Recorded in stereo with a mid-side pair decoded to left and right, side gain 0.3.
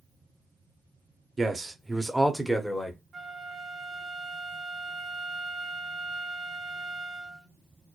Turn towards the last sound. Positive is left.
turn(degrees=-55)